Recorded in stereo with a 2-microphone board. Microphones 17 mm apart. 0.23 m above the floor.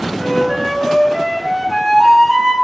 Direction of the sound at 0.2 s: 15° left (ahead or behind).